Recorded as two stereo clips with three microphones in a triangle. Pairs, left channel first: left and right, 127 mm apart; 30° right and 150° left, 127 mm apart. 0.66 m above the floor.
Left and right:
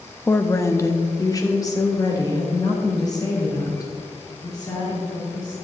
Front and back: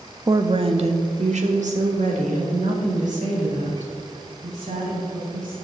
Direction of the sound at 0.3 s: 145° left.